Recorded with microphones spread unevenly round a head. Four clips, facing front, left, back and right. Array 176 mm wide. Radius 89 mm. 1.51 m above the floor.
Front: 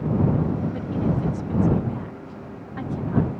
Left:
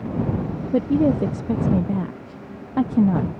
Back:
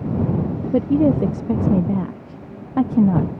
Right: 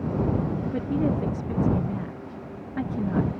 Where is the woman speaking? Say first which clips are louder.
Left 9 dB, back 9 dB; 150° left.